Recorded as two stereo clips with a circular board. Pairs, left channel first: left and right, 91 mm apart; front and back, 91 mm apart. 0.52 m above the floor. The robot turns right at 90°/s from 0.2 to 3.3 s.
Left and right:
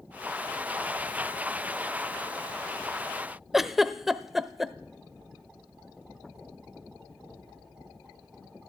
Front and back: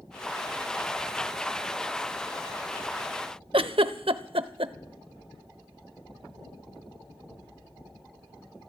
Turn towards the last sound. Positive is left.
turn(degrees=-175)